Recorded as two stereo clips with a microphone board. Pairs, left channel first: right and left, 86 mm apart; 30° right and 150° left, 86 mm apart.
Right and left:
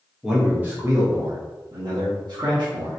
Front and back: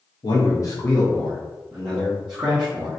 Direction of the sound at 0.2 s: 5° left.